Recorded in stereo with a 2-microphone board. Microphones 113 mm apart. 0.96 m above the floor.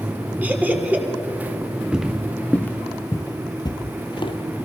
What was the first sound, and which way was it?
Laughter, 15° right (ahead or behind).